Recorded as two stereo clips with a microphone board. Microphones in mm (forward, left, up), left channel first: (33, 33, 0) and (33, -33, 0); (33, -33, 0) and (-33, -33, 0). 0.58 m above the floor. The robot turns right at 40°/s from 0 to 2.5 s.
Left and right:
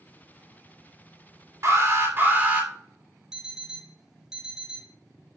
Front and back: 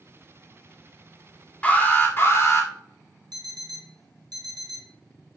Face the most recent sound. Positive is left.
turn(degrees=-170)